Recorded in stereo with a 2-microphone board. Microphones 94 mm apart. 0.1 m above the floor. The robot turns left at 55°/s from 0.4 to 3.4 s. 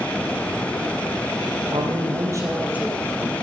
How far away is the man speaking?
About 3 m.